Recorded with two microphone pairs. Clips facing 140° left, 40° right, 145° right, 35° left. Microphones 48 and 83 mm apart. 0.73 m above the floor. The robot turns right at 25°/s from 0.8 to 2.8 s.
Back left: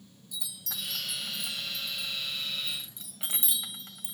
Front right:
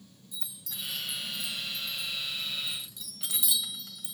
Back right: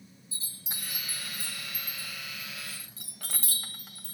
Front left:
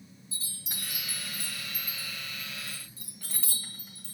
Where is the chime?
150° left, 1.4 m; by 4.1 s 160° right, 1.4 m.